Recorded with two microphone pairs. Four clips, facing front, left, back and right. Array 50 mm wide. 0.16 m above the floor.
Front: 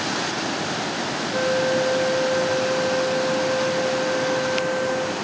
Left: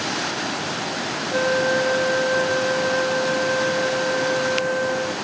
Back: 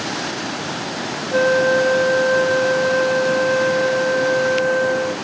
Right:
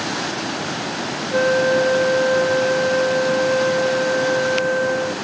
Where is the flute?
160° right, 0.7 m.